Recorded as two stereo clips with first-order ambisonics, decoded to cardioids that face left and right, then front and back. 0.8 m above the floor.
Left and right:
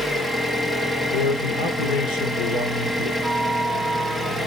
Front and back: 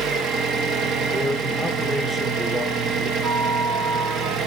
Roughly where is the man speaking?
Left.